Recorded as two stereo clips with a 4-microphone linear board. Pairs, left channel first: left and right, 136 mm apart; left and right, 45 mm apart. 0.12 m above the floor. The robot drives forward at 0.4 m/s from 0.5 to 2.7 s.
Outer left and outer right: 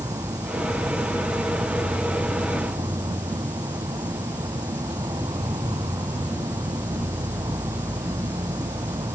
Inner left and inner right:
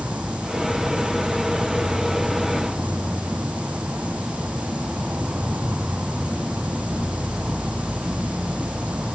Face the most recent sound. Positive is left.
turn(degrees=-30)  # may be behind; listen again after turning